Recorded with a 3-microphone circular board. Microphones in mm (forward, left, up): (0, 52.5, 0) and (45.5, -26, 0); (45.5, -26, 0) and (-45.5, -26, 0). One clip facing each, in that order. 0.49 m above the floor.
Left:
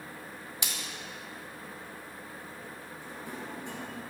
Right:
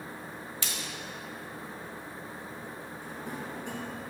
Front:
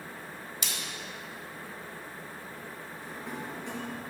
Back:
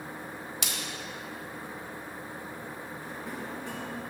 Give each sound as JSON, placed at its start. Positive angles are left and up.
{"t": 0.6, "sound": "a splash", "azimuth_deg": -170, "distance_m": 1.5}
{"t": 3.0, "sound": "a drawer", "azimuth_deg": -90, "distance_m": 2.5}